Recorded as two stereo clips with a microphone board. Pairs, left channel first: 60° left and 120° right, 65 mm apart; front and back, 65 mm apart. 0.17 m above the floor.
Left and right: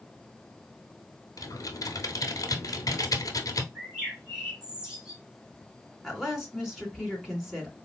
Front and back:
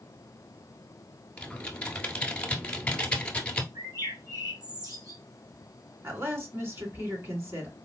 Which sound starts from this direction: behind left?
A woman speaking, at 6.0 s.